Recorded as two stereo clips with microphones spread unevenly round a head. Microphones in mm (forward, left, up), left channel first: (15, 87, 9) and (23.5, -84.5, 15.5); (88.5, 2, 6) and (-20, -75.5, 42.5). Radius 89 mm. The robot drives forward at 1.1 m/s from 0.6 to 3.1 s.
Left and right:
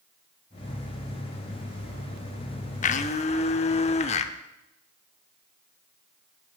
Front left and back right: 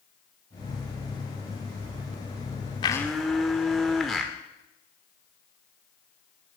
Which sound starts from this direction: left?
A blender, at 2.8 s.